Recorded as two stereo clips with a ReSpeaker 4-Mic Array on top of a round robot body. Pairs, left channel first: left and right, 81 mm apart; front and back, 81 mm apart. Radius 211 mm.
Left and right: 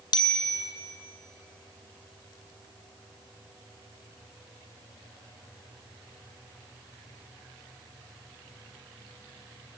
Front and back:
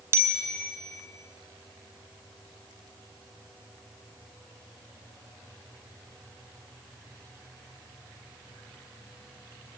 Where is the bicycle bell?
120° left, 2.5 m.